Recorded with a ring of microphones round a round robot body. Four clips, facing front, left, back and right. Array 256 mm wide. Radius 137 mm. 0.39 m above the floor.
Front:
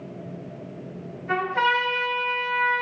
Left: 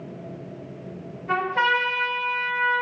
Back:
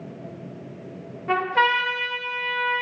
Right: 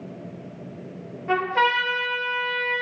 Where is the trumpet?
150° right, 1.1 m.